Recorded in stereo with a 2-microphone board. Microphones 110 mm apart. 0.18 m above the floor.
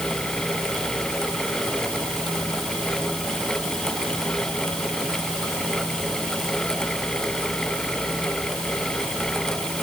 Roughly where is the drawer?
I don't hear a drawer.